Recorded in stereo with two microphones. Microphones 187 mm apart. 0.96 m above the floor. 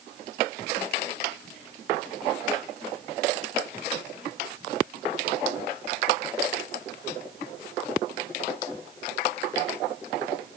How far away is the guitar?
No guitar in this recording.